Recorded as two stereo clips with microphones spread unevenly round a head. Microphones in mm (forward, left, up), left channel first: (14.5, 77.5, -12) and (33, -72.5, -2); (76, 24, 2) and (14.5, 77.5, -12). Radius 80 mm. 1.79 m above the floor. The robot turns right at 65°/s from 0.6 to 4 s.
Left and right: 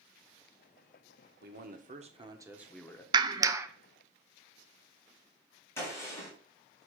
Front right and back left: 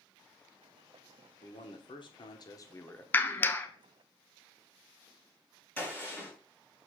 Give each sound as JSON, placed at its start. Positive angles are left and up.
{"t": 1.4, "sound": "a man speaking", "azimuth_deg": -80, "distance_m": 1.3}
{"t": 3.1, "sound": "a clap", "azimuth_deg": -65, "distance_m": 0.6}
{"t": 5.8, "sound": "a gunshot", "azimuth_deg": 20, "distance_m": 4.5}